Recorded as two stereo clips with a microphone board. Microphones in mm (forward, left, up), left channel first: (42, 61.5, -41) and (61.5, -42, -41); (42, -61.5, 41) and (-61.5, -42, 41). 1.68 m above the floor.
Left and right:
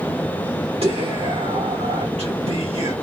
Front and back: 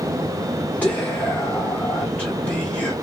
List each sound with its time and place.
0.8 s whispering: 85° right, 1.6 m